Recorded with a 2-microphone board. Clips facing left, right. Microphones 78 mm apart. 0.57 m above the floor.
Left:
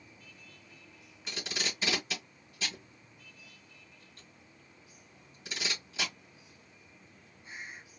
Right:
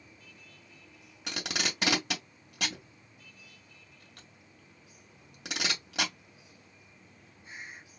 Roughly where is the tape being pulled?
Right.